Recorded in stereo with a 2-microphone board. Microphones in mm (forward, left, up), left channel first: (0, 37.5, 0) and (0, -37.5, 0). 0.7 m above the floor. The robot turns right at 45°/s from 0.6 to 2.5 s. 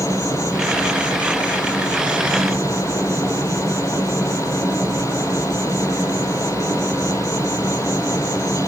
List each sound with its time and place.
0.0 s an insect: 130° right, 1.8 m; by 8.7 s 40° right, 1.8 m